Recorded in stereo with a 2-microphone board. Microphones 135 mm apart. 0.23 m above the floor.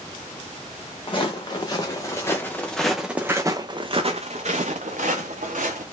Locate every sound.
1.1 s footsteps: 40° left (ahead or behind), 1.5 m; by 5.8 s 80° right, 1.5 m